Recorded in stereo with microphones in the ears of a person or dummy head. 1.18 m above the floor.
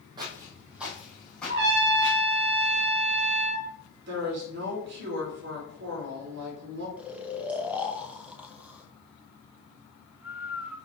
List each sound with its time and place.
0.2 s footsteps: 25° right (ahead or behind), 1.9 m; by 2.2 s 15° left (ahead or behind), 4 m
1.5 s a trumpet: 60° right (ahead or behind), 2.5 m
4.1 s a woman speaking: 65° right (ahead or behind), 3.5 m
7.0 s snoring: 5° right (ahead or behind), 0.8 m